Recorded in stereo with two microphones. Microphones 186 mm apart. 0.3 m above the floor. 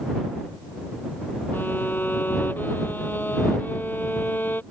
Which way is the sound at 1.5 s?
10° left (ahead or behind).